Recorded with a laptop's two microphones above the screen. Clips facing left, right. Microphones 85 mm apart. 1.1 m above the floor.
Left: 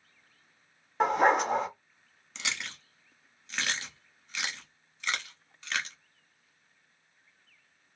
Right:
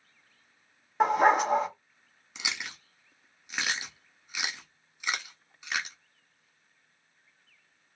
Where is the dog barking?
5° right (ahead or behind), 0.7 m.